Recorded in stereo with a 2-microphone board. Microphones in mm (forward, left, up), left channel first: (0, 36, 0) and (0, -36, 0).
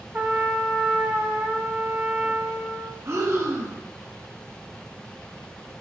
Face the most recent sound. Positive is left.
turn(degrees=-40)  # may be behind; listen again after turning